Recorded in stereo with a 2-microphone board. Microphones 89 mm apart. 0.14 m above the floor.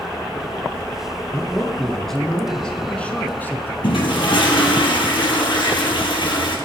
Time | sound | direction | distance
1.3 | a man speaking | centre (ahead or behind) | 1.9 m
3.8 | a toilet flushing | 65° left (ahead or behind) | 2.5 m